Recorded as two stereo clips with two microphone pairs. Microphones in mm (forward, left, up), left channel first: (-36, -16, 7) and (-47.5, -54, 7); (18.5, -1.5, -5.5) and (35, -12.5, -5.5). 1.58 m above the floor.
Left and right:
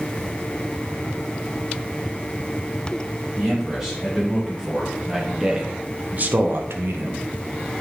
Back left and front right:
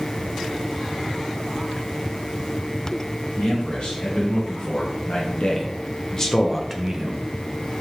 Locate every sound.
3.4 s a man speaking: 165° left, 2 m; by 7.7 s 65° right, 0.8 m